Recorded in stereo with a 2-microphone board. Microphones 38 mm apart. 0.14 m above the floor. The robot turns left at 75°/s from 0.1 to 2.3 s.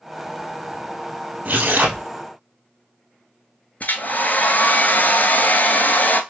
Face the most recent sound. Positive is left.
turn(degrees=55)  # may be behind; listen again after turning